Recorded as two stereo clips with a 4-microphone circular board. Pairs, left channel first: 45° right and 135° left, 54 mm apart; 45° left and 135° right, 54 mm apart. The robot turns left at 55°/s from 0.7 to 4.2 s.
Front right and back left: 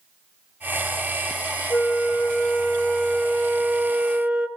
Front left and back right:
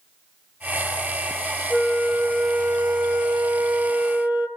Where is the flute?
20° right, 1.7 m; by 4.5 s 160° right, 1.7 m.